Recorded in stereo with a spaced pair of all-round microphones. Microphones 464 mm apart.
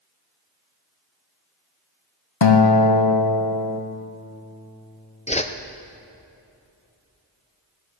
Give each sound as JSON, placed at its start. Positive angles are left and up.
{"t": 2.4, "sound": "a guitar", "side_deg": 65, "distance_m": 0.9}
{"t": 5.3, "sound": "a whoosh", "side_deg": 15, "distance_m": 0.6}